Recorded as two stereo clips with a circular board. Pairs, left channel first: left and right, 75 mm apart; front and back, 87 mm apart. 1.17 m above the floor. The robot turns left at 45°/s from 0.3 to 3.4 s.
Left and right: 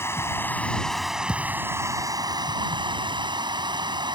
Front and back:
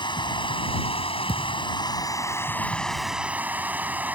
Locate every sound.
0.0 s running water: 30° left; by 4.2 s 110° right
1.3 s a thud: 10° right; by 1.7 s 25° right